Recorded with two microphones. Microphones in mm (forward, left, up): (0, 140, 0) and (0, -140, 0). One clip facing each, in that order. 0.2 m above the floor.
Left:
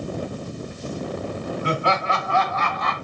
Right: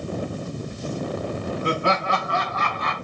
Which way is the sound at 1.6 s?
50° right (ahead or behind).